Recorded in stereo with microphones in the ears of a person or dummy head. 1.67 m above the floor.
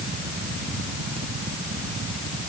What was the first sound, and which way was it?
Only background noise.